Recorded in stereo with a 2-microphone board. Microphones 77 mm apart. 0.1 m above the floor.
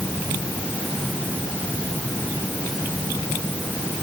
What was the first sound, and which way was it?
Only background noise.